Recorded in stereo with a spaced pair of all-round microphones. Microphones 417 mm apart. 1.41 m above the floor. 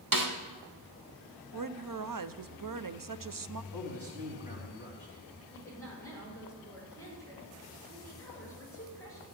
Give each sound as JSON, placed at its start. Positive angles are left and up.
{"t": 0.1, "sound": "a snare drum", "side_deg": -50, "distance_m": 1.4}
{"t": 1.5, "sound": "a woman speaking", "side_deg": -50, "distance_m": 0.5}
{"t": 3.7, "sound": "a man speaking", "side_deg": -75, "distance_m": 3.5}
{"t": 5.5, "sound": "a woman speaking", "side_deg": 5, "distance_m": 5.5}